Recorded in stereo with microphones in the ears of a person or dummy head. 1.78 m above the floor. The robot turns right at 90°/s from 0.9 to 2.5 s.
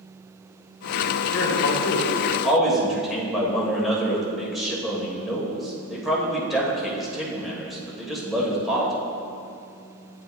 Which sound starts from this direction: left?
A man speaking, at 1.3 s.